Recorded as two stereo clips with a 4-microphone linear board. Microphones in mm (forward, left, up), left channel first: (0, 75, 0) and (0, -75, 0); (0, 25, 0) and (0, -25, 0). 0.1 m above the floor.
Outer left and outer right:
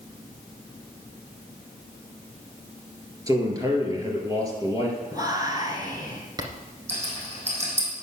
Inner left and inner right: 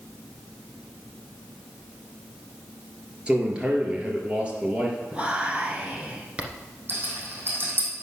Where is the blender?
No blender in this recording.